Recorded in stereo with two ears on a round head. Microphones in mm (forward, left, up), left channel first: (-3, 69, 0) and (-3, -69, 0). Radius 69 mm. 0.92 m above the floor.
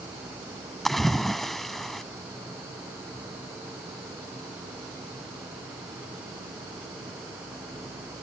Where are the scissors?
No scissors in this recording.